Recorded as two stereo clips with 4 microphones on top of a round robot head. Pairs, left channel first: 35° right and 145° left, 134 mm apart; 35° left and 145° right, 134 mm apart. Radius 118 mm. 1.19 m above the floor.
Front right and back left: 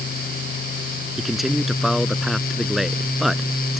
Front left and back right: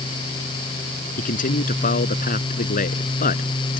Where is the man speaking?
60° left.